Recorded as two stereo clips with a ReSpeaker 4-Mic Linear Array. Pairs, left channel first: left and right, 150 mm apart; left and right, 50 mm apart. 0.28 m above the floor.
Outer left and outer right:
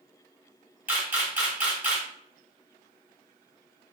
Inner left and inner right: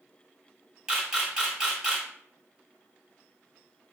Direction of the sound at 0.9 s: 15° right (ahead or behind).